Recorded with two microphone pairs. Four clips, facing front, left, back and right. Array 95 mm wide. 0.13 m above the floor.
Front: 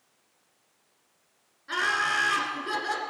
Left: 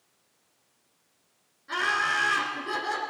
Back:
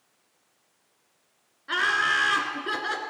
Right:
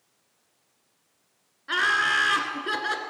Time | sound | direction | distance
1.7 | laughter | 115° right | 1.3 m